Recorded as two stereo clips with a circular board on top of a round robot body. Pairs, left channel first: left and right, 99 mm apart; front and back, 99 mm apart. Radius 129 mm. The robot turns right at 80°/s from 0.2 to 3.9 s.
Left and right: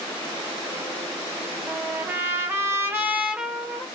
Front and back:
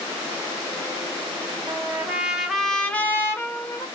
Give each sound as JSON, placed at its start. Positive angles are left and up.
{"t": 1.7, "sound": "a trumpet", "azimuth_deg": -155, "distance_m": 0.8}